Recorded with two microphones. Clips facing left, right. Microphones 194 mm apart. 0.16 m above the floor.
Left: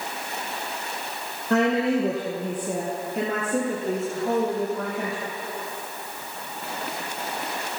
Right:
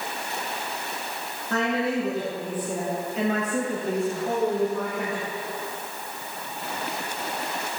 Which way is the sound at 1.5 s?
65° left (ahead or behind).